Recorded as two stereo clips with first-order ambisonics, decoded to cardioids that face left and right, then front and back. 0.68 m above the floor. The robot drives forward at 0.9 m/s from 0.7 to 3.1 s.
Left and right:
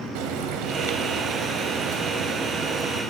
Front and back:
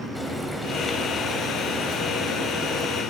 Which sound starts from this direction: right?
Frying, at 0.1 s.